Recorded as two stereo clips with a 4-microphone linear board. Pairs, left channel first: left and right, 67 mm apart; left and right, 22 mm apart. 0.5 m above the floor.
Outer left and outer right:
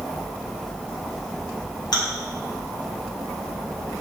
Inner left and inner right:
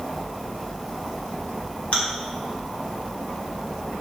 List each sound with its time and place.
1.9 s chewing: 70° left (ahead or behind), 0.8 m